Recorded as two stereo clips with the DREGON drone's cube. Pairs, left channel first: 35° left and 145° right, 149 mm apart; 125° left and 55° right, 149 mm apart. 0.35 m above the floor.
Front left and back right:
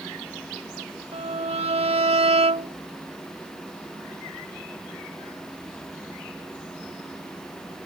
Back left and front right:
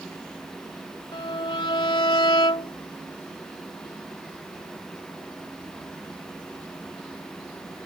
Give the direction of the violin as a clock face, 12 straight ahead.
6 o'clock.